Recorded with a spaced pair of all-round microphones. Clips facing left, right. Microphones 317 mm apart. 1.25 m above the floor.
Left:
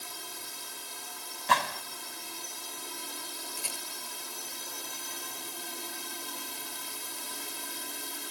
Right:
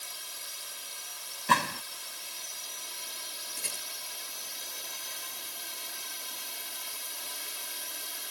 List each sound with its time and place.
0.0 s a drone: 60° left (ahead or behind)
1.5 s a gunshot: 35° right (ahead or behind)
3.6 s a rattle: 25° right (ahead or behind)